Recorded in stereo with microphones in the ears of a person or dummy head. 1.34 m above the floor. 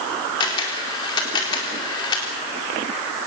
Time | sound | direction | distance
0.4 | a camera shutter | 20° left (ahead or behind) | 4 m